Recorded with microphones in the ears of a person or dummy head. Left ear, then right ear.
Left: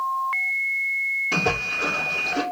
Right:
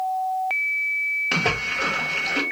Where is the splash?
35° right (ahead or behind), 0.7 m.